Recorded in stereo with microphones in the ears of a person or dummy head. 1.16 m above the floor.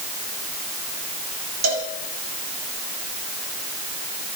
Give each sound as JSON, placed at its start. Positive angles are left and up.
{"t": 1.6, "sound": "a cowbell", "side_deg": -70, "distance_m": 6.0}